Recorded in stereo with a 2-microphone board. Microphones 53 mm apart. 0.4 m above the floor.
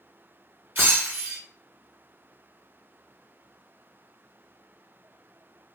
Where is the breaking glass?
40° right (ahead or behind), 2.5 m.